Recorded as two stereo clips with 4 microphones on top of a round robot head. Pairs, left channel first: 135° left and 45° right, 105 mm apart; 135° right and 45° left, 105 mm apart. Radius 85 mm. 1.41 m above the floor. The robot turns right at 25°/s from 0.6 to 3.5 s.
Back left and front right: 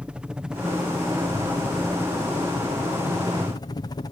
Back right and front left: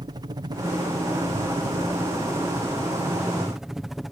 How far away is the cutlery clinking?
No cutlery clinking in this recording.